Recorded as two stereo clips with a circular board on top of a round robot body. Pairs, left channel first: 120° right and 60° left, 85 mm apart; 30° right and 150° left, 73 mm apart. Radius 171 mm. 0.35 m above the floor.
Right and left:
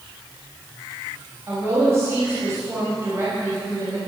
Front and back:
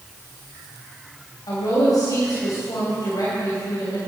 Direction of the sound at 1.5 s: 5° left.